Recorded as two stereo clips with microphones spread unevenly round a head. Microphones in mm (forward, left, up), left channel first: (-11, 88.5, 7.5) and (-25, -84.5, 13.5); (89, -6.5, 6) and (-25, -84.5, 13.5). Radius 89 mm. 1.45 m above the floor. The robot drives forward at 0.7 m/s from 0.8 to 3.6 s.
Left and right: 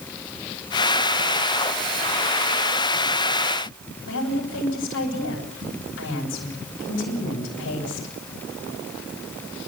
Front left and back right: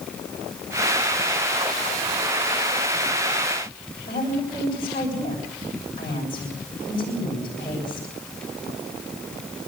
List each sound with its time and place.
4.1 s a woman speaking: 100° left, 9.5 m